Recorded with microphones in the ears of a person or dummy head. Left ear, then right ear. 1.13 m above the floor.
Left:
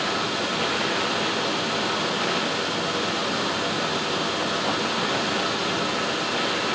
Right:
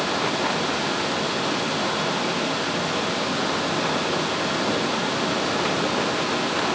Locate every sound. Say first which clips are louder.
0.0 s a fan: right 2 dB; 15° right (ahead or behind), 1.7 m